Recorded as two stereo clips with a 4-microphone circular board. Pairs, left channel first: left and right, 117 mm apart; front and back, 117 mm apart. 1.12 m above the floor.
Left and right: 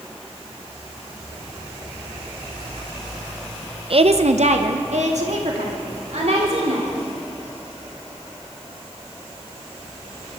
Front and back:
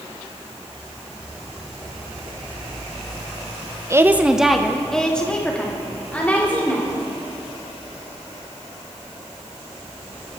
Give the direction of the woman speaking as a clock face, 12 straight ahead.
4 o'clock.